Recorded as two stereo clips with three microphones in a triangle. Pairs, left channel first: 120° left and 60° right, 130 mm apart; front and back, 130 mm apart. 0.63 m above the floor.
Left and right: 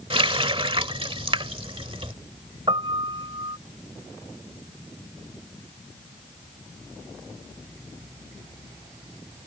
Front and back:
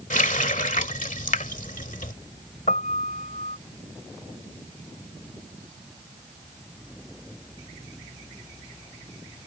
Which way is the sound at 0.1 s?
15° right.